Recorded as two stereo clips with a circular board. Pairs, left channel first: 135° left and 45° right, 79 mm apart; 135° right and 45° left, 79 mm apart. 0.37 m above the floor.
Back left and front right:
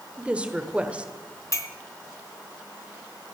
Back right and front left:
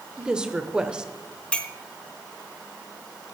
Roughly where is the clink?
Behind left.